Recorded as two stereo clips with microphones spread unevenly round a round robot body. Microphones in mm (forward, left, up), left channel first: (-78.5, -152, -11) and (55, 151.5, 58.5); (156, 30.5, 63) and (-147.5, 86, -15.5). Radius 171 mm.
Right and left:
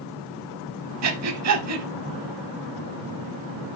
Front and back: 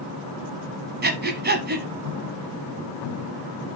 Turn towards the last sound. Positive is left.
turn(degrees=110)